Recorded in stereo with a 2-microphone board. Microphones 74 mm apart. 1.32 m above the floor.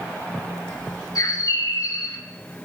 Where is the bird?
55° left (ahead or behind), 1.1 m.